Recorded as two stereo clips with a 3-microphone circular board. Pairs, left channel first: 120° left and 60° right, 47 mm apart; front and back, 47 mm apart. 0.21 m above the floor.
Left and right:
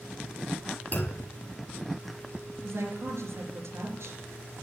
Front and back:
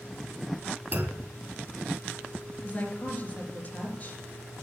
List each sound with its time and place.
0.9 s a clunk: 150° left, 1.4 m
2.6 s a woman speaking: 55° right, 4 m